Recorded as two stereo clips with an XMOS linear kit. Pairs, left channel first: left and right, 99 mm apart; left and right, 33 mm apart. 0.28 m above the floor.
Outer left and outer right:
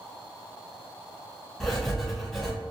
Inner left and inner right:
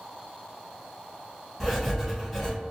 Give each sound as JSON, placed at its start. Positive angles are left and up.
{"t": 1.6, "sound": "writing", "side_deg": 5, "distance_m": 1.3}